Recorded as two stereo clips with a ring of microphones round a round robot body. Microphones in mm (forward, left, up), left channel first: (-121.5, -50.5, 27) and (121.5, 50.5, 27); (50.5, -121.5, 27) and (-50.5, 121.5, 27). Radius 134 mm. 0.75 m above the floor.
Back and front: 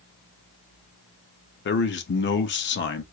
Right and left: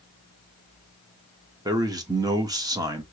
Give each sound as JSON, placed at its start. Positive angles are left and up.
{"t": 1.6, "sound": "a man speaking", "azimuth_deg": 180, "distance_m": 0.7}